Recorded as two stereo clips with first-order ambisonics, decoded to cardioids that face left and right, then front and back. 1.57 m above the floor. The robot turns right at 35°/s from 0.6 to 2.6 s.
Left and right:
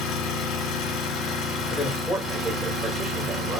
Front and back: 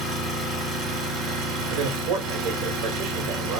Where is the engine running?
125° left, 2.0 m; by 3.6 s 165° right, 2.0 m.